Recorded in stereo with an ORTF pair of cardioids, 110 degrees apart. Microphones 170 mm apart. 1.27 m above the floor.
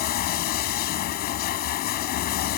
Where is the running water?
65° left.